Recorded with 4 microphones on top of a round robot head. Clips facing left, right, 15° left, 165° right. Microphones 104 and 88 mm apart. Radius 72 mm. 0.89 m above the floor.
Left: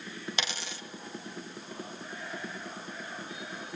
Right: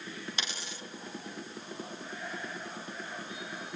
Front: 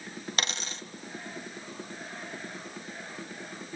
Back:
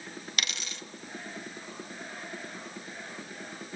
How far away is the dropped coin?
About 1.8 m.